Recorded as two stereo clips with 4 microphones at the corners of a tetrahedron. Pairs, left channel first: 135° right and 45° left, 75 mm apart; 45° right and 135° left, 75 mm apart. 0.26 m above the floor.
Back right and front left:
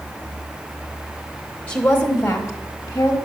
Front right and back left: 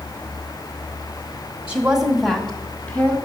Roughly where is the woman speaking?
Behind.